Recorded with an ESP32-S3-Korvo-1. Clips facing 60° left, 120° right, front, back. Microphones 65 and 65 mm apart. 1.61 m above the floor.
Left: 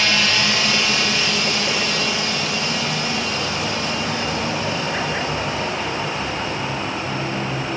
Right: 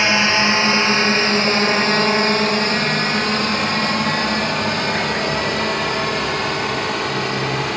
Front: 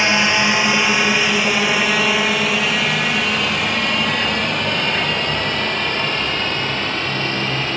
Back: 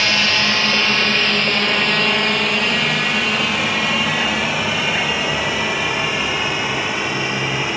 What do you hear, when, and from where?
0.0 s a drone: 65° right; by 7.8 s 105° right